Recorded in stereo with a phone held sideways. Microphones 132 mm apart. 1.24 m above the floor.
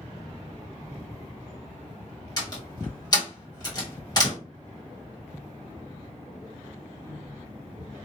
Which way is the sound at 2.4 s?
30° left (ahead or behind).